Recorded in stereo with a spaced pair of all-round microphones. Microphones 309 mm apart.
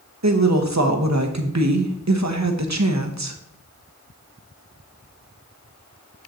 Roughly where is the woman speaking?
Right.